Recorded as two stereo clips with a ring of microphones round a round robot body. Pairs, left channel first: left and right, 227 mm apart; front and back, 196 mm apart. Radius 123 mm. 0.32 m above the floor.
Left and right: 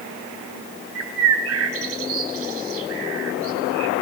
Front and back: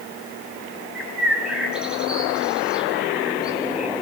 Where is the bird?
95° right, 2.5 m.